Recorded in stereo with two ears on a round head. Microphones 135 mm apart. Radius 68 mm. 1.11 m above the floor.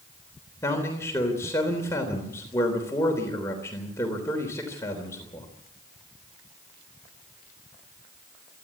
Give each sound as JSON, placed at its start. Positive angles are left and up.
{"t": 0.6, "sound": "a man speaking", "side_deg": 20, "distance_m": 3.5}